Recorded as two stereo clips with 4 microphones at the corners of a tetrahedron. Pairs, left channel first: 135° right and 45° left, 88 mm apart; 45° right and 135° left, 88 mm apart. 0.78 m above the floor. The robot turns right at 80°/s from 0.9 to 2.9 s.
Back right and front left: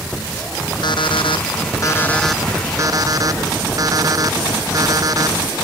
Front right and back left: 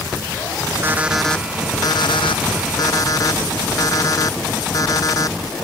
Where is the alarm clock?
160° right; by 5.4 s straight ahead.